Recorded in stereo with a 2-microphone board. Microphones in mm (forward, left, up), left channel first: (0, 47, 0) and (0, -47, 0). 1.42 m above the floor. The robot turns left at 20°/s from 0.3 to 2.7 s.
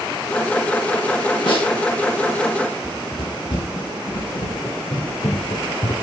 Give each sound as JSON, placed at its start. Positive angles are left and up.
{"t": 1.5, "sound": "a snare drum", "side_deg": 60, "distance_m": 7.0}
{"t": 2.8, "sound": "running footsteps", "side_deg": 55, "distance_m": 6.0}